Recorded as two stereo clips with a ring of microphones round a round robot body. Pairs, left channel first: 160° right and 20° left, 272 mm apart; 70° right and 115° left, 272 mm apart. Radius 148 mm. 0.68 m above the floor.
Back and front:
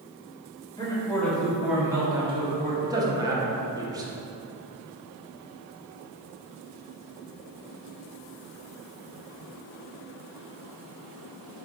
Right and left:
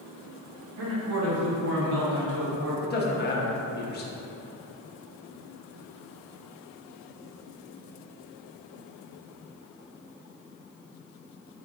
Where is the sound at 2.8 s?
45° right, 0.8 m.